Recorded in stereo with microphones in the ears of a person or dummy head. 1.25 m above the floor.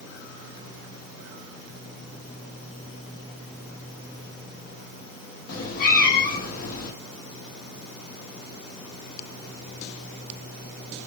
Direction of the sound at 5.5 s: 50° left (ahead or behind).